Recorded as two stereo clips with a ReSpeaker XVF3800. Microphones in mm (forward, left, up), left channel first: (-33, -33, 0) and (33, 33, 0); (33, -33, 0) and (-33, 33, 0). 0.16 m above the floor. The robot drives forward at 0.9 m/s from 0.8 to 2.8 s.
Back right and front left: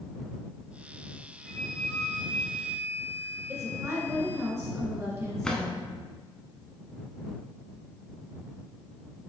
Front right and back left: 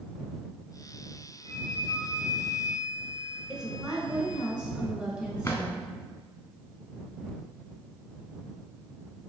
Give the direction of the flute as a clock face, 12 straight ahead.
7 o'clock.